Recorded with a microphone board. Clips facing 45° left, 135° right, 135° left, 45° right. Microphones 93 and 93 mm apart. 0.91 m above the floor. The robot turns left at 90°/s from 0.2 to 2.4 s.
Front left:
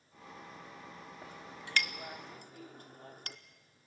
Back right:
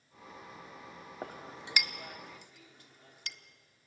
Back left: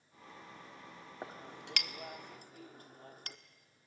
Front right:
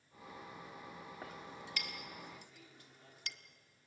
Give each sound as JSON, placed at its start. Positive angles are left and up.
{"t": 1.2, "sound": "a clink", "azimuth_deg": -160, "distance_m": 0.9}